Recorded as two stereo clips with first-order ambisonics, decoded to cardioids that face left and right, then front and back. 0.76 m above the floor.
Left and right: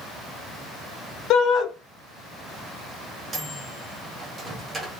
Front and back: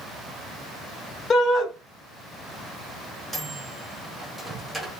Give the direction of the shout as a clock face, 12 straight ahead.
10 o'clock.